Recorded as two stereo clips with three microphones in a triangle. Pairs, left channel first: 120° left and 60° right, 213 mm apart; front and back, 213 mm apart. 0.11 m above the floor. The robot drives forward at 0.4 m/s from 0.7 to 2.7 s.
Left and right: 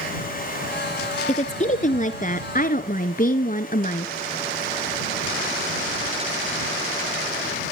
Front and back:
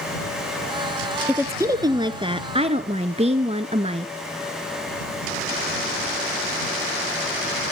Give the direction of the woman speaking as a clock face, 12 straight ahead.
8 o'clock.